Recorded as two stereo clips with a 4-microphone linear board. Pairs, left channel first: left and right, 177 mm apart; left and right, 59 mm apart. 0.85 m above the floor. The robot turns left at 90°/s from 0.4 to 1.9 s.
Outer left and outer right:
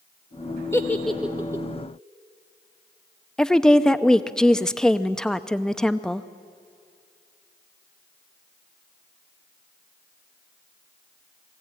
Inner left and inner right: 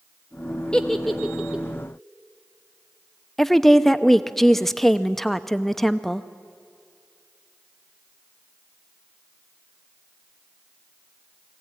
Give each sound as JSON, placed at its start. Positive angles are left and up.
{"t": 0.7, "sound": "a giggle", "side_deg": 15, "distance_m": 1.0}
{"t": 3.4, "sound": "a woman speaking", "side_deg": 5, "distance_m": 0.6}